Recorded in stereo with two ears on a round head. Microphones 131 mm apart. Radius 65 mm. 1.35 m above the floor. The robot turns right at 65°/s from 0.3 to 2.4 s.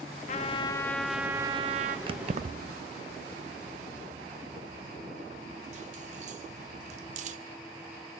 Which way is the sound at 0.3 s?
130° left.